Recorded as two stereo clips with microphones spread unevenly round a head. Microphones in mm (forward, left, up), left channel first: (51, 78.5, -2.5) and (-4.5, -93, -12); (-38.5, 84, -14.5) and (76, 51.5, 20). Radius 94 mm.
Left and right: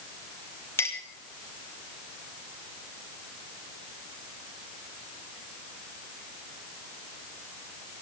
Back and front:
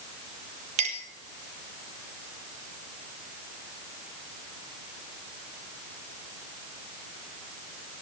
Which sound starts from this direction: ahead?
A clink, at 0.8 s.